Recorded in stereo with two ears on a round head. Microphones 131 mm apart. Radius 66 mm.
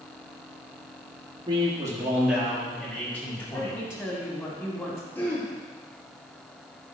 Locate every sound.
1.5 s a man speaking: 30° right (ahead or behind), 1.9 m; by 3.8 s 25° left (ahead or behind), 3 m
3.5 s a woman speaking: 15° left (ahead or behind), 2 m
5.2 s throat clearing: 15° left (ahead or behind), 1.6 m